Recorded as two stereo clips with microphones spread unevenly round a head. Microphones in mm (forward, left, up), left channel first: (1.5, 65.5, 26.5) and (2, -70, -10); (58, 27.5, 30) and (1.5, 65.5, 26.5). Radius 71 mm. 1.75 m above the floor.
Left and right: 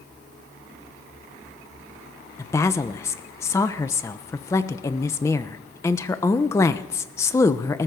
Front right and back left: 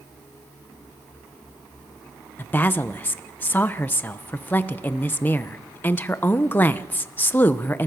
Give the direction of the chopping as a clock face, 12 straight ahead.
I don't hear chopping.